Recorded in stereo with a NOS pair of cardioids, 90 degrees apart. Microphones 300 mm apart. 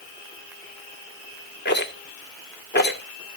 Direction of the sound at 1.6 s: 35° left.